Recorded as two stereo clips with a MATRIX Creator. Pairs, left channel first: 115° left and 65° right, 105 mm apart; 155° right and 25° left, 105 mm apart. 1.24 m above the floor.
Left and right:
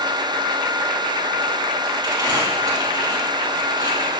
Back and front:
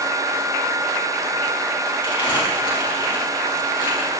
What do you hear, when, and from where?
2.0 s crumpling: 115° right, 4.5 m